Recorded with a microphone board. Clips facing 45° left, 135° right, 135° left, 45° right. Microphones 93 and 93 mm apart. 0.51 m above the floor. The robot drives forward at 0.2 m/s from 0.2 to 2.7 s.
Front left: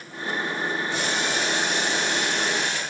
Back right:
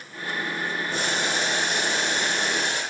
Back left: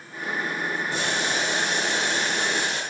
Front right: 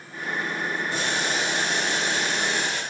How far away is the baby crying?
No baby crying in this recording.